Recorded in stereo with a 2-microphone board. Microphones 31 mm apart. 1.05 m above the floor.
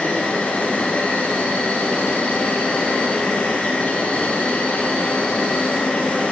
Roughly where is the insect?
Left.